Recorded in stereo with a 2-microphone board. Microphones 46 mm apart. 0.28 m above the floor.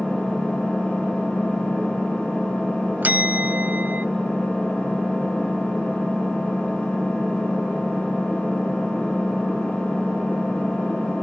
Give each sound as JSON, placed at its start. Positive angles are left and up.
{"t": 0.0, "sound": "an engine running", "side_deg": 25, "distance_m": 6.0}
{"t": 3.0, "sound": "a bell", "side_deg": -40, "distance_m": 0.6}